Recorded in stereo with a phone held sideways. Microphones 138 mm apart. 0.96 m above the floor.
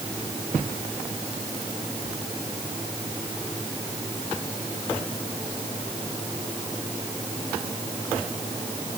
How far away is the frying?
No frying in this recording.